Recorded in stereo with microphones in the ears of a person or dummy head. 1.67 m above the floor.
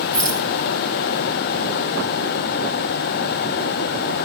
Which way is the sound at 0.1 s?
5° left (ahead or behind).